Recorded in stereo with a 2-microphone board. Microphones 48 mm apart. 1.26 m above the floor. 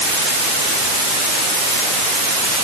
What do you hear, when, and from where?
Only background noise.